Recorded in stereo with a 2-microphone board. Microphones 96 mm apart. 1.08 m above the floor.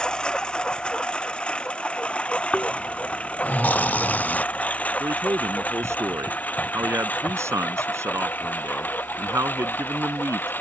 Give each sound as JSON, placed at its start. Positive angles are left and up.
{"t": 0.0, "sound": "a lawn mower", "side_deg": 10}
{"t": 2.5, "sound": "snoring", "side_deg": 20}
{"t": 5.0, "sound": "a man speaking", "side_deg": -30}